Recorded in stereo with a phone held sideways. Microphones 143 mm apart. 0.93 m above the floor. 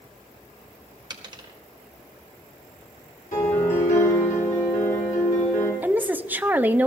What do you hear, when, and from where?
1.1 s a dropped coin: 30° right (ahead or behind), 1.5 m
3.3 s a piano: 75° left (ahead or behind), 6 m
5.8 s a woman speaking: 10° right (ahead or behind), 0.6 m